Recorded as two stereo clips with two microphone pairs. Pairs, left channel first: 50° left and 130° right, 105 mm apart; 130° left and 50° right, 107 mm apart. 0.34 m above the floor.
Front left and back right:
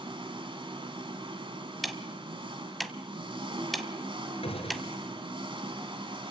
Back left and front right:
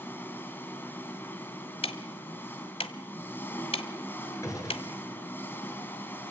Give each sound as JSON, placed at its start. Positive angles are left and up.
{"t": 0.0, "sound": "an engine running", "azimuth_deg": -160, "distance_m": 2.5}
{"t": 1.8, "sound": "ticking", "azimuth_deg": 140, "distance_m": 1.2}
{"t": 4.4, "sound": "a gunshot", "azimuth_deg": 70, "distance_m": 4.0}